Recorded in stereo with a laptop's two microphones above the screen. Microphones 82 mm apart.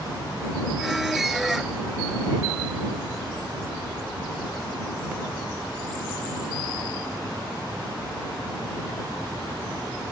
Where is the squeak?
5° right (ahead or behind).